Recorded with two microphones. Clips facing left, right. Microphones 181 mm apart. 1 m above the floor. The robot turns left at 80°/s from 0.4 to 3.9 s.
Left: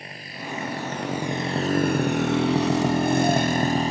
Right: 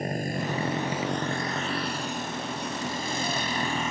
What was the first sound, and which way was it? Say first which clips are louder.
A motorcycle: right 9 dB; 45° right (ahead or behind).